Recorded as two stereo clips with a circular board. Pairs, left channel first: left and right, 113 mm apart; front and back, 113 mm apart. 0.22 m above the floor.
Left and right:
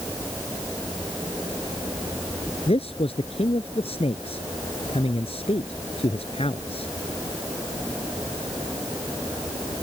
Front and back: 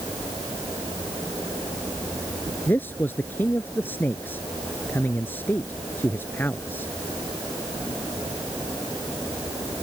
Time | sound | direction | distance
2.7 | a man speaking | 70° left | ?